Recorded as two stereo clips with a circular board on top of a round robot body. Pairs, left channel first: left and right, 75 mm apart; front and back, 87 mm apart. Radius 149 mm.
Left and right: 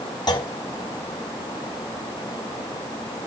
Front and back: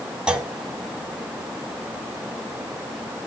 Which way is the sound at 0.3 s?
100° left.